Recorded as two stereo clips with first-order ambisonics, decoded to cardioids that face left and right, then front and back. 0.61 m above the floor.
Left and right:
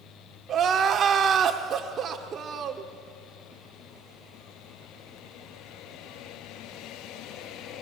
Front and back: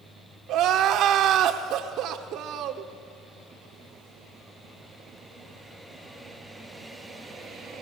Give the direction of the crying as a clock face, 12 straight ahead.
5 o'clock.